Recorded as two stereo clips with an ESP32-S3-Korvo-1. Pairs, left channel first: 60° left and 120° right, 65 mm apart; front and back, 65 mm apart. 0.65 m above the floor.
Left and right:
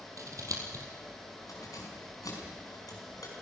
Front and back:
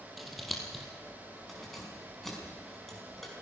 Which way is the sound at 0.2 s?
90° right.